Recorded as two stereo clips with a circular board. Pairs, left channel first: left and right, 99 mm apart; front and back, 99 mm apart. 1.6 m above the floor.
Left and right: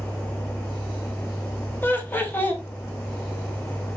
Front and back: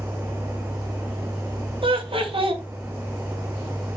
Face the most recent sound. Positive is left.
turn(degrees=160)